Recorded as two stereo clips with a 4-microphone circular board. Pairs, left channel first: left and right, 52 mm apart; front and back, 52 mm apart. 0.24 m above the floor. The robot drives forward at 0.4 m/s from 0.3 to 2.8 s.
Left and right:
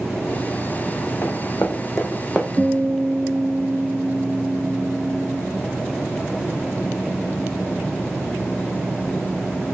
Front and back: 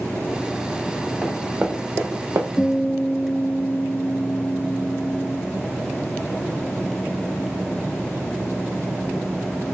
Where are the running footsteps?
110° left, 1.1 m; by 2.5 s 175° left, 0.8 m.